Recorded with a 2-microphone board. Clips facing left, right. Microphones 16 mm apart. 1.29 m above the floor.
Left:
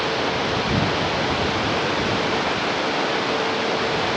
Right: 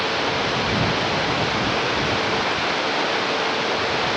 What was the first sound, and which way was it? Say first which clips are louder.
Running water: even; 10° right (ahead or behind).